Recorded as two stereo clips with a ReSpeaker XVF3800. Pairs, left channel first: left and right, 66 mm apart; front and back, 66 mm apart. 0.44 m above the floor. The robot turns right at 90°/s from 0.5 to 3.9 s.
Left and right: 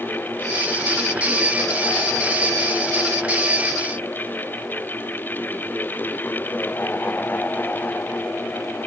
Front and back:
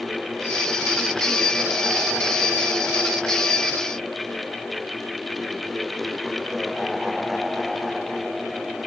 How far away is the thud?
I don't hear a thud.